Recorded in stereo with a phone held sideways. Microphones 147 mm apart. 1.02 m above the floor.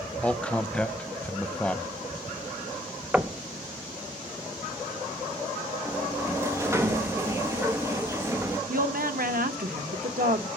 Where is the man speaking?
10° left (ahead or behind), 0.6 m.